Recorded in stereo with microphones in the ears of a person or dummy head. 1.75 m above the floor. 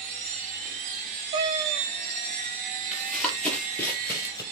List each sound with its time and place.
0.0 s a machine running: 30° right (ahead or behind), 1.6 m
1.3 s a cat meowing: 30° right (ahead or behind), 1.1 m
2.9 s running footsteps: 5° right (ahead or behind), 2.5 m; by 4.4 s 15° left (ahead or behind), 2.5 m